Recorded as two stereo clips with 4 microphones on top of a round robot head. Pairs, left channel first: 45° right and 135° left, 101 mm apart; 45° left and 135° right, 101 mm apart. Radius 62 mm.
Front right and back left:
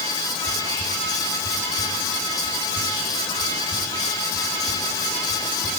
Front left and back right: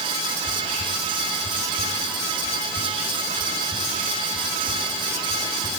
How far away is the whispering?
About 3.5 m.